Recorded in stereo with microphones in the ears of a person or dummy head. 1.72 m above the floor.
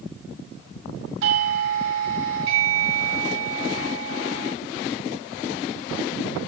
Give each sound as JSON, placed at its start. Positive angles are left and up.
{"t": 1.2, "sound": "a doorbell", "side_deg": -75, "distance_m": 1.2}